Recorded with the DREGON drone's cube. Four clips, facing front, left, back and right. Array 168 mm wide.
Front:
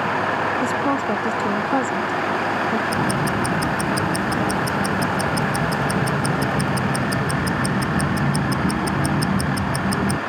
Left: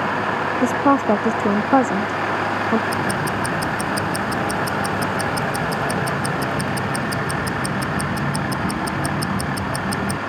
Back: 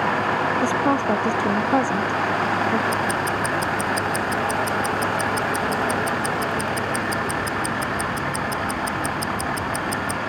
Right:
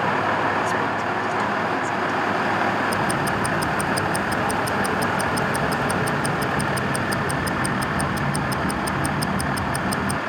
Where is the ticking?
10° left.